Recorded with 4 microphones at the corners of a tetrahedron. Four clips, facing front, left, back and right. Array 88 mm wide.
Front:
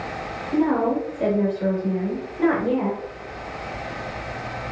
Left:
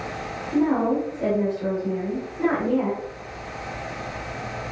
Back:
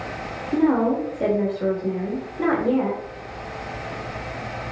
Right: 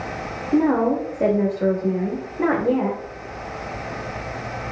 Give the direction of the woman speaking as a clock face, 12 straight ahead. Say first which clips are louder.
Right 3 dB, back 1 dB; 3 o'clock.